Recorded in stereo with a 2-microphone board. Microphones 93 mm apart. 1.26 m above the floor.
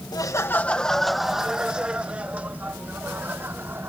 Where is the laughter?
45° left (ahead or behind); by 3.9 s 25° right (ahead or behind).